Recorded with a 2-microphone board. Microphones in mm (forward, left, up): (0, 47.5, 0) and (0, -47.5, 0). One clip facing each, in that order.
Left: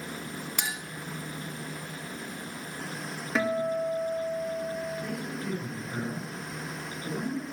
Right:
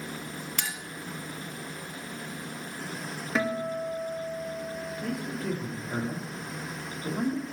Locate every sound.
0.6 s a clink: 15° left (ahead or behind), 0.8 m
3.4 s a guitar: centre (ahead or behind), 1.7 m
5.0 s a man speaking: 75° right (ahead or behind), 5 m